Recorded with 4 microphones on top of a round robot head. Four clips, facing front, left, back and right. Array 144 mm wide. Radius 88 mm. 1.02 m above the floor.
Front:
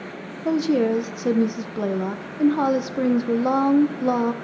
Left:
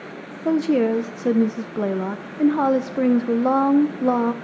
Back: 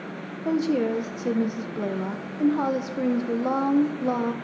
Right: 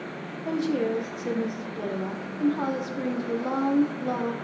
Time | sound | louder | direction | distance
0.5 | a woman speaking | left 7 dB, front 3 dB | 70° left | 0.5 m